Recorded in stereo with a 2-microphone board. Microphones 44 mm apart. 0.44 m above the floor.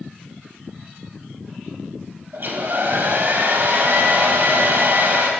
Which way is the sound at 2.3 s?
55° right (ahead or behind).